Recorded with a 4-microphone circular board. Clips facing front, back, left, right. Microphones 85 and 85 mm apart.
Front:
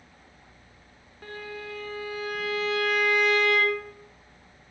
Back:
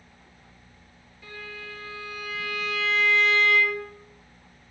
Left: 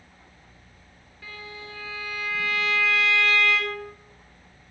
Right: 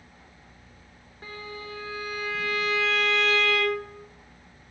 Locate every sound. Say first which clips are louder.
1.2 s a violin: front 3 dB, right 2 dB; 35° right, 7 m